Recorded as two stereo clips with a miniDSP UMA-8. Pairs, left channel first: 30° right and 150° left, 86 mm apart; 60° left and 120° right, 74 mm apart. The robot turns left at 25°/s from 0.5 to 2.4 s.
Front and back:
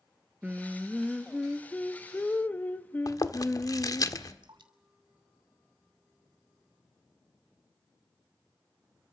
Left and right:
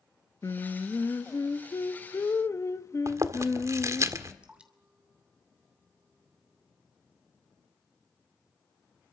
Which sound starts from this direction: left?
Singing, at 0.4 s.